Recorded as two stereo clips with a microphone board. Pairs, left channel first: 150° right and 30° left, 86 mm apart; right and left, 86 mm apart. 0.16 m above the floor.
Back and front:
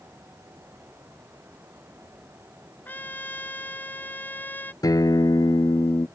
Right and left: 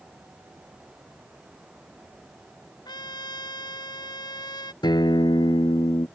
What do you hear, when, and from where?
2.9 s a trumpet: 90° right
4.8 s a guitar: 115° right